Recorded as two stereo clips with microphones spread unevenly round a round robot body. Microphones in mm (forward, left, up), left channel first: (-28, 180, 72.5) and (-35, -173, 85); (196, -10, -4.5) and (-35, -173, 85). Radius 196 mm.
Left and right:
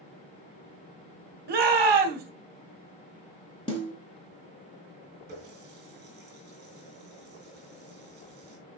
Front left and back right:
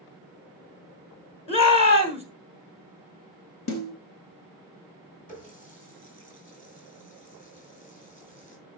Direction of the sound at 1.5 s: 30° right.